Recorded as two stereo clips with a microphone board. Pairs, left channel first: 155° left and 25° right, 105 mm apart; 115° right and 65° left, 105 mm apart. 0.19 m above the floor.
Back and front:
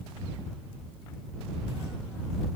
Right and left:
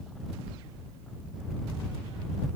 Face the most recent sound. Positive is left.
No sound to turn to.